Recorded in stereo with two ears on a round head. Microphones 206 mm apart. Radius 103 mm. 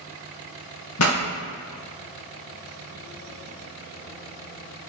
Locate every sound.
1.0 s a pop: 70° left (ahead or behind), 0.7 m